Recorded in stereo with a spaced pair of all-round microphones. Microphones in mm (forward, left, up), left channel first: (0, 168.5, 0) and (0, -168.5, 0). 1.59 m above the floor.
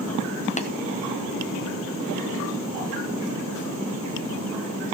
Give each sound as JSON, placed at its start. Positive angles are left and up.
{"t": 0.6, "sound": "tapping", "side_deg": 20, "distance_m": 0.9}